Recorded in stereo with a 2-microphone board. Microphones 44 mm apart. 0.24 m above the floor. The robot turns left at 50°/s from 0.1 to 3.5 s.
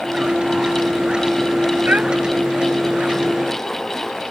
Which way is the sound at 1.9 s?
35° right (ahead or behind).